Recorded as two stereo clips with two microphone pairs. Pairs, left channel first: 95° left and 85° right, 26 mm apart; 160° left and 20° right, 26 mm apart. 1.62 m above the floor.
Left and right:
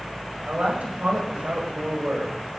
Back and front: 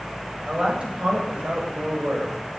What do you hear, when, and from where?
0.5 s a woman speaking: 65° right, 8.5 m